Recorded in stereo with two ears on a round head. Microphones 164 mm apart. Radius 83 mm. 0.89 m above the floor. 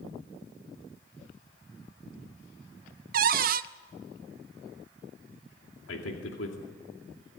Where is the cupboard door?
50° right (ahead or behind), 0.6 m.